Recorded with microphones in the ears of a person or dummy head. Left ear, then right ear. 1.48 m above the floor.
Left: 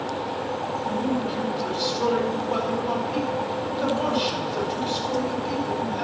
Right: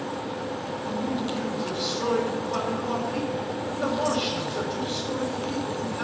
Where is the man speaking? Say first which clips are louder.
Left 1 dB; 40° left (ahead or behind), 5.5 m.